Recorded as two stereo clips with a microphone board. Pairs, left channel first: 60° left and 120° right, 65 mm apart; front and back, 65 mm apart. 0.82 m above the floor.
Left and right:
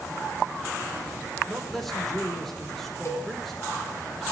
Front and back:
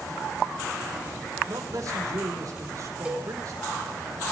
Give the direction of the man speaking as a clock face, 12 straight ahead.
7 o'clock.